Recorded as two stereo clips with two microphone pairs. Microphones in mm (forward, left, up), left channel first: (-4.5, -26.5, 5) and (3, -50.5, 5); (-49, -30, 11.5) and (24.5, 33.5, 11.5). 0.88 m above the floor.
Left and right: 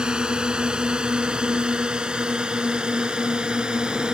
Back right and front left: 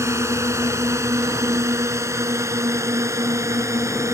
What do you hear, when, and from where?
0.0 s a drone: 20° right